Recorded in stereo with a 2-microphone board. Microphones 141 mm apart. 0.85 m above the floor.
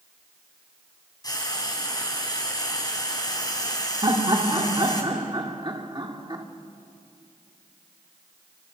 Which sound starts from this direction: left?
Frying, at 1.2 s.